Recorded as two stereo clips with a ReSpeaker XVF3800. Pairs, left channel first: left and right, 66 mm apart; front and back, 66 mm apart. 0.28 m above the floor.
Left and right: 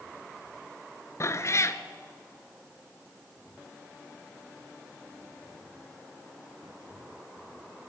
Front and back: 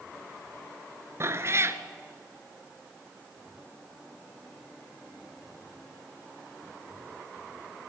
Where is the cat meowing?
135° left, 1.0 m.